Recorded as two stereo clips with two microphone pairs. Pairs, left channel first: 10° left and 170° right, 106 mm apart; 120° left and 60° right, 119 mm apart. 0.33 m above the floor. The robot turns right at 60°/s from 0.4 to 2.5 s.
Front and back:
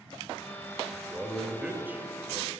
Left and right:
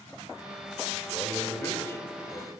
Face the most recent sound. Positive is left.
turn(degrees=-175)